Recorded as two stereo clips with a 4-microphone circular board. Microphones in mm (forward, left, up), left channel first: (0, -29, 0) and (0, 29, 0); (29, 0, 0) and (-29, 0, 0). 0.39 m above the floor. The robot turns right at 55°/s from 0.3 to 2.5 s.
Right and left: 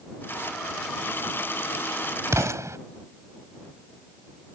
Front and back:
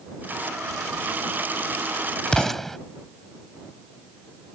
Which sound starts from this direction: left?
An explosion, at 2.3 s.